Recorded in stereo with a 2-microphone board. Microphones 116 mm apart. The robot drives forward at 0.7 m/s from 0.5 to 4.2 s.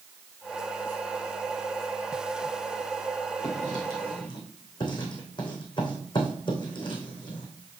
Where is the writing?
35° left (ahead or behind), 4 m; by 7.5 s 40° left (ahead or behind), 3.5 m.